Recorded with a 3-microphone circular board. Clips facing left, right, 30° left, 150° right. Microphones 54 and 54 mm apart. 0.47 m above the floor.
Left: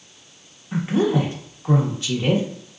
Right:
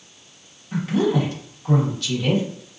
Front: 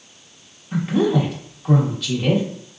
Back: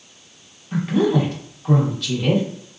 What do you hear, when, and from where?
0.7 s a woman speaking: 115° left, 0.8 m